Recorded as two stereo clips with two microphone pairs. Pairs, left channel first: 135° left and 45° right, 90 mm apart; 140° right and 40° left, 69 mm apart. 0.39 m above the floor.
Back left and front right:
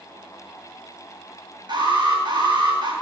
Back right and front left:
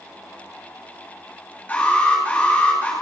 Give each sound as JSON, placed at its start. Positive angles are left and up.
{"t": 1.7, "sound": "an alarm", "azimuth_deg": -75, "distance_m": 9.0}